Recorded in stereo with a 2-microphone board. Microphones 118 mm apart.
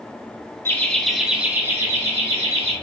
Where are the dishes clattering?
I don't hear dishes clattering.